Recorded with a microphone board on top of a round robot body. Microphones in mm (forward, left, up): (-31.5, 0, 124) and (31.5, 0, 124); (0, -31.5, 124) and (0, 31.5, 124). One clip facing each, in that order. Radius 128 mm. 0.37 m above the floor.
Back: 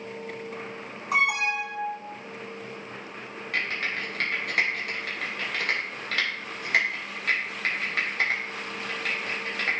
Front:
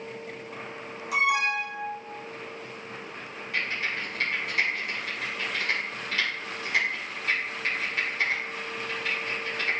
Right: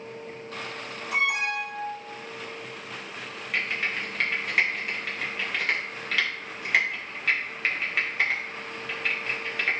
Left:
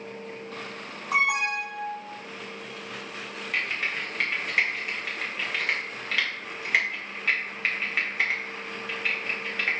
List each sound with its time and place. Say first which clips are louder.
1.1 s an alarm: even, left 2 dB; 135° left, 3 m
3.5 s typing on a keyboard: back 1 dB, right 1 dB; straight behind, 2.5 m